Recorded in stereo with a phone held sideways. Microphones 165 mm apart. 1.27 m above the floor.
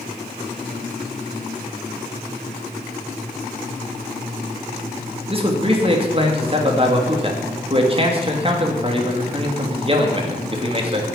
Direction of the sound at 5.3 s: 35° right (ahead or behind).